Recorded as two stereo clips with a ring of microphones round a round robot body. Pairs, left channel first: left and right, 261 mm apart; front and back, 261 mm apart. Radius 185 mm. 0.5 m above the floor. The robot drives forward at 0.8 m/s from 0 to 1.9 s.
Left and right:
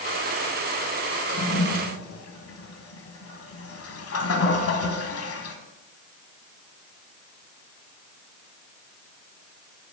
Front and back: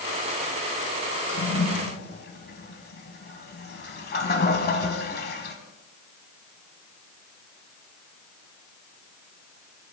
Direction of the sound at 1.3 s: 40° left.